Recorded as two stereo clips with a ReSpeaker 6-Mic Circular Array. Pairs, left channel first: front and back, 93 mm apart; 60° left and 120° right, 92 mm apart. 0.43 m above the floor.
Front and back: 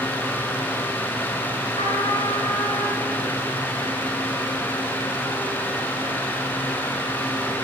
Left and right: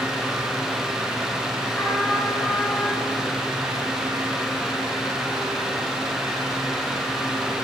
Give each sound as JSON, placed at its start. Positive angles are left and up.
{"t": 1.8, "sound": "a trumpet", "azimuth_deg": -15, "distance_m": 6.0}